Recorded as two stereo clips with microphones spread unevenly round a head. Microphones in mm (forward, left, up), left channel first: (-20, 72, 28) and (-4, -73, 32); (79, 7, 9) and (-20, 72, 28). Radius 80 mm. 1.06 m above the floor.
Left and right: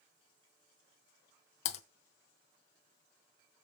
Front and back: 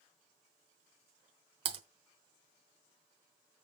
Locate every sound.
1.6 s typing on a keyboard: 135° left, 1.1 m